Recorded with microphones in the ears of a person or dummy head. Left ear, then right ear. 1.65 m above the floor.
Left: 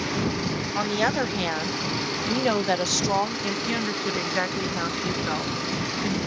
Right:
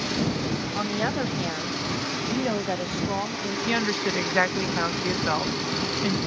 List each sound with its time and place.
0.8 s a woman speaking: 20° left (ahead or behind); by 3.6 s 60° left (ahead or behind)
3.7 s a woman speaking: 15° right (ahead or behind)